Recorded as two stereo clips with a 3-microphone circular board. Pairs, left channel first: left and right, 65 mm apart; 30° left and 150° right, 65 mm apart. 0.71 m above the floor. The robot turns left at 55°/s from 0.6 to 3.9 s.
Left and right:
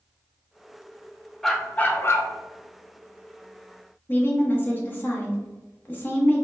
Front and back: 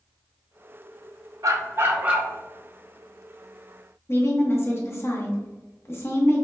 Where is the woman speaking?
50° left, 1.1 m.